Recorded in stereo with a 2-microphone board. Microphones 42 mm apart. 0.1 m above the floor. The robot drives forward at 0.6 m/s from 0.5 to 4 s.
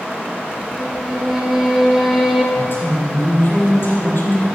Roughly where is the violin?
Centre.